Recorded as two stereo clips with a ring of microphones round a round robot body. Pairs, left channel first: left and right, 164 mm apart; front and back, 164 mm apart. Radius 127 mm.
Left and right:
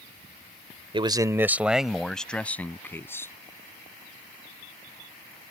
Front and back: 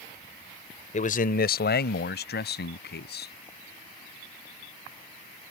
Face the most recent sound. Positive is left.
turn(degrees=15)